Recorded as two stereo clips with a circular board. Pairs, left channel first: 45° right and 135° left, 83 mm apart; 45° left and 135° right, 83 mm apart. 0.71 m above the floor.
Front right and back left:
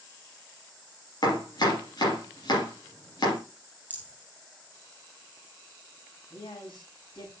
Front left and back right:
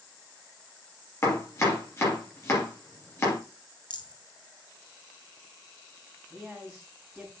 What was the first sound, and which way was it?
Chopping, 10° right.